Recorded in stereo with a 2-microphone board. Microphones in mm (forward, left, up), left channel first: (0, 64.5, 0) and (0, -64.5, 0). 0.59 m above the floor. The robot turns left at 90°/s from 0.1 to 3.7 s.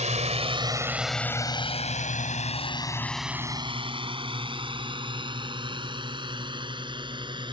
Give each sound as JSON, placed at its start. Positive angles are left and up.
{"t": 0.0, "sound": "a drone", "side_deg": -65}